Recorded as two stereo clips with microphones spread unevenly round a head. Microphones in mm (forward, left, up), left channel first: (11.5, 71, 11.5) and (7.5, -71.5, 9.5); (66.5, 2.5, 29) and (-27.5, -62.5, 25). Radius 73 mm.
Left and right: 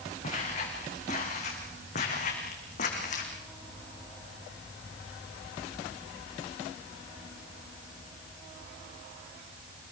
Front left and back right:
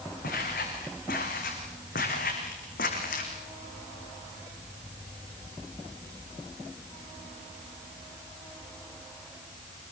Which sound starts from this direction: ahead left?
Footsteps, at 0.2 s.